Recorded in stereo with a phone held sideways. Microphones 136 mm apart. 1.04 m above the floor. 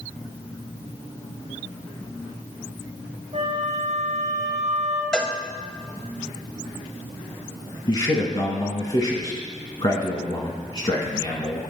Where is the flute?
50° right (ahead or behind), 0.9 m.